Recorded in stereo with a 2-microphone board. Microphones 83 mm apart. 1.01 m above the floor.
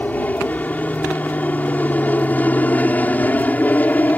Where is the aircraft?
20° left (ahead or behind).